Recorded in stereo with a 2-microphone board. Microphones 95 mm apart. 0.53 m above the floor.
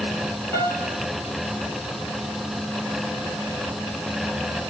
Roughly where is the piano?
Left.